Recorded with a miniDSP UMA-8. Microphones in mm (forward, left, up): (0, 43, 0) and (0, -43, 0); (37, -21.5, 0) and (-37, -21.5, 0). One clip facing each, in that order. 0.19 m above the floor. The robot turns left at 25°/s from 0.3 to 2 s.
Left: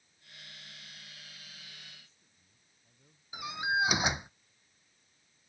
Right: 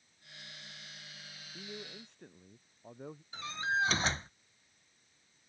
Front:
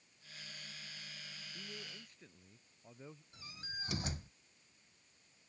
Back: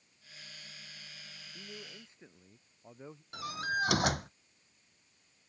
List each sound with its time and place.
1.5 s a man speaking: 100° right; by 3.2 s 110° right
3.3 s a door slam: 165° left